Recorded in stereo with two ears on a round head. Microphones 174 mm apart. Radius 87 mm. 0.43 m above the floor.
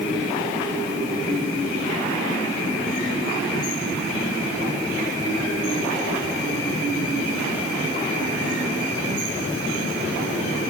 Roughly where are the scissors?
I don't hear scissors.